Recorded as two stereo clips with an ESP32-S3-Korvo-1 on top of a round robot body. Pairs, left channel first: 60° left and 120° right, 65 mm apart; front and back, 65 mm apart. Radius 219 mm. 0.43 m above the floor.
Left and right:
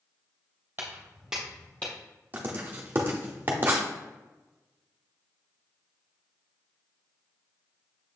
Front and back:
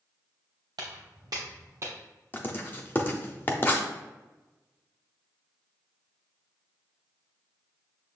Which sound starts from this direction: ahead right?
Writing, at 2.3 s.